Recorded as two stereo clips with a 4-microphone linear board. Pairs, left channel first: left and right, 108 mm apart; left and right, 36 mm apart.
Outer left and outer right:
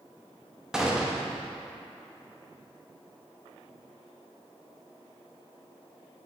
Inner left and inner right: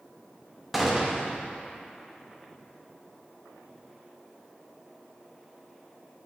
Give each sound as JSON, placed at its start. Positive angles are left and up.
{"t": 0.7, "sound": "a gunshot", "side_deg": -5, "distance_m": 0.7}